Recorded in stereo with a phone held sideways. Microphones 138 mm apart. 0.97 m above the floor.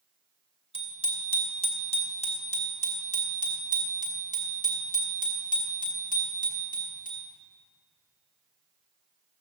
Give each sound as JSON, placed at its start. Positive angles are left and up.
{"t": 0.7, "sound": "a bicycle bell", "side_deg": 40, "distance_m": 2.5}